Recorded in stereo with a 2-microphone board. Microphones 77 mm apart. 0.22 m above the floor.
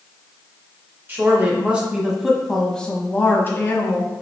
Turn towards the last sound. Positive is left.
turn(degrees=45)  # may be behind; listen again after turning